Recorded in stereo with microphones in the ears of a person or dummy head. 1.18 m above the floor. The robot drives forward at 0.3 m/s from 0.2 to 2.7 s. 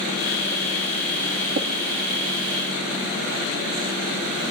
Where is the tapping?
75° right (ahead or behind), 2 m.